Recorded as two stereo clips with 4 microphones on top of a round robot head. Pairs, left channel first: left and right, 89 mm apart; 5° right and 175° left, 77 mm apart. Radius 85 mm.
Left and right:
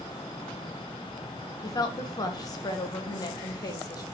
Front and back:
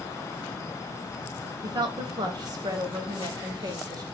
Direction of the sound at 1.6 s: 135° left.